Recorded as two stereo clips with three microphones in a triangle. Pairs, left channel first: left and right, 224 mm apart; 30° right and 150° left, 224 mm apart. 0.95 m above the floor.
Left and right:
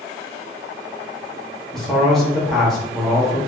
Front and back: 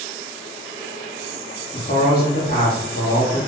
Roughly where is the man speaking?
Ahead.